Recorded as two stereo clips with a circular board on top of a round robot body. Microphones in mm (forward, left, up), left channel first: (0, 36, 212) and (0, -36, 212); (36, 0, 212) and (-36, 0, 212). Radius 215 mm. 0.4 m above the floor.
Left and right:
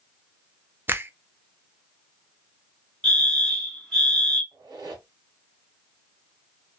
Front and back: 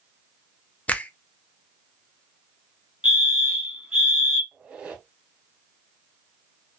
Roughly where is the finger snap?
Ahead right.